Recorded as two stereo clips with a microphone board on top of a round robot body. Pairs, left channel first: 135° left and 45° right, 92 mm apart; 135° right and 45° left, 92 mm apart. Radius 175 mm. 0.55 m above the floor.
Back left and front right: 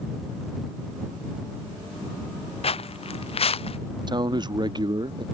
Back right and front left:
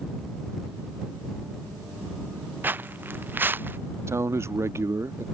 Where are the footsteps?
115° left.